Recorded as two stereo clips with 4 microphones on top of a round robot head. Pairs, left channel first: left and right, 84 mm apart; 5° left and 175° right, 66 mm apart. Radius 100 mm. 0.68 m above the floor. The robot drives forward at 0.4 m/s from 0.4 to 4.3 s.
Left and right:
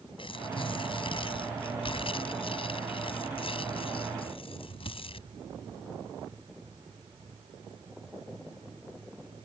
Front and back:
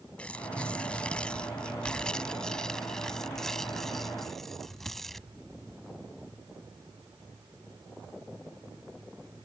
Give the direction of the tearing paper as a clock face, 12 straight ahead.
9 o'clock.